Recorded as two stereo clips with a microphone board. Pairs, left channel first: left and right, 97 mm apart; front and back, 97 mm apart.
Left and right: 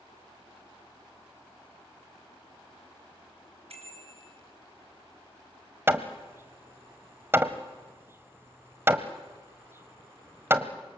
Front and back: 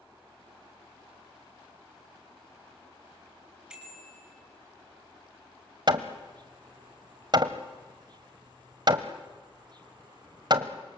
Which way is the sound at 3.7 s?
100° right.